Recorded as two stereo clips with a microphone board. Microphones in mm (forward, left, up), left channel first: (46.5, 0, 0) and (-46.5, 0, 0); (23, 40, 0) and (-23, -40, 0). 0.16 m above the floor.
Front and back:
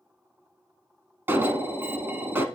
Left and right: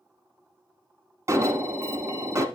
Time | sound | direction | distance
1.3 | an alarm | 135° right | 1.0 m